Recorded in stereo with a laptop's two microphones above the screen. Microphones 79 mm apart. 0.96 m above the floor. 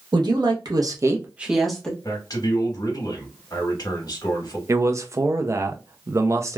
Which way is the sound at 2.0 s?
50° left (ahead or behind).